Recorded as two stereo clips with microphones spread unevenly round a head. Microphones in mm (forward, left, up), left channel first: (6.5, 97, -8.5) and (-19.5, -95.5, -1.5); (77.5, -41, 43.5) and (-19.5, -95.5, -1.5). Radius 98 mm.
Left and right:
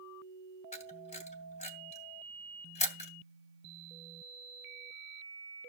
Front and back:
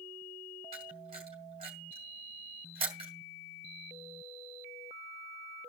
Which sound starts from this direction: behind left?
A camera shutter, at 0.7 s.